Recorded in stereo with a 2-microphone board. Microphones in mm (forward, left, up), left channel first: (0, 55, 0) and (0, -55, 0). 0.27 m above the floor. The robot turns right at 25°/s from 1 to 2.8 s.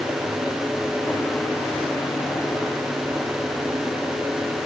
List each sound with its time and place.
Only background noise.